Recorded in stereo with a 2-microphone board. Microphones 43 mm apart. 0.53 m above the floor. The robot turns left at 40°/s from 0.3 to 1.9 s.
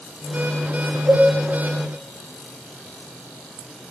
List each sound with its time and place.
1.1 s a cowbell: 45° right (ahead or behind), 3.5 m; by 1.3 s 35° right (ahead or behind), 3.5 m